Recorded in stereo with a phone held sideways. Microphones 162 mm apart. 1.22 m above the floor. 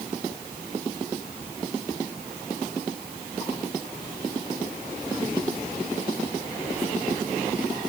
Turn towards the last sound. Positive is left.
No sound to turn to.